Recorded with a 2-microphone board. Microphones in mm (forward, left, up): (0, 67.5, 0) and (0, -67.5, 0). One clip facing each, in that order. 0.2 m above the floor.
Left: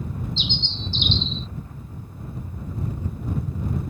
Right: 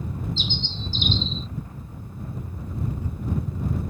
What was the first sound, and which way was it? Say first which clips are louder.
A bird: even; 40° right (ahead or behind).